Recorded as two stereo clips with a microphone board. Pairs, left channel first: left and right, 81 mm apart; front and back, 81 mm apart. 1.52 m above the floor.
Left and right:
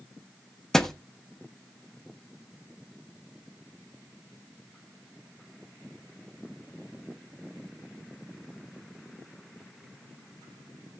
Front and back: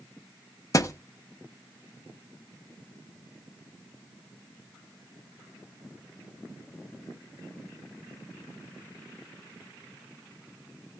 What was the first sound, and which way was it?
A thud, 5° left.